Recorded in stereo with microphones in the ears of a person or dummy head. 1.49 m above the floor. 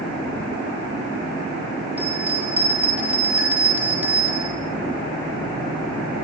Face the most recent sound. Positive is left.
turn(degrees=-10)  # may be behind; listen again after turning